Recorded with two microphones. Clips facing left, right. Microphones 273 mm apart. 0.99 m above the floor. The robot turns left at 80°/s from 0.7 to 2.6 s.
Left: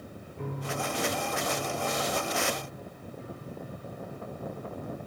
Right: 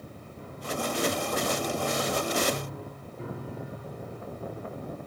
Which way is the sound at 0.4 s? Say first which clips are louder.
Right 1 dB; 65° left.